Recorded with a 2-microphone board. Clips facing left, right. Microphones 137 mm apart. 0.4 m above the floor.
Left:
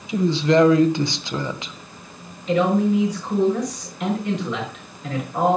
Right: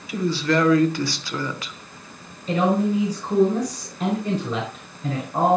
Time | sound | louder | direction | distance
0.1 | a woman speaking | left 4 dB | 20° left (ahead or behind) | 1.0 m
2.5 | a man speaking | left 2 dB | 30° right (ahead or behind) | 5 m